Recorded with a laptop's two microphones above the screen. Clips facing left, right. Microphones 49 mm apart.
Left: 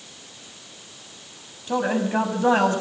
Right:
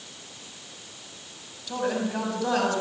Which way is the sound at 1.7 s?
30° left (ahead or behind).